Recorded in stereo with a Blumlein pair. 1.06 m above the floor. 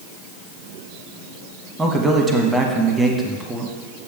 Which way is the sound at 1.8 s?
5° right.